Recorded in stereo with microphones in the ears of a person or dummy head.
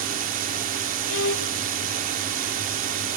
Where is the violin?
80° left.